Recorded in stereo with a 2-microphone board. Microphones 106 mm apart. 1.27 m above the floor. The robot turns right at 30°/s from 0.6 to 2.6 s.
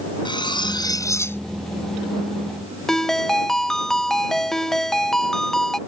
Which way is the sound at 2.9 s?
5° left (ahead or behind).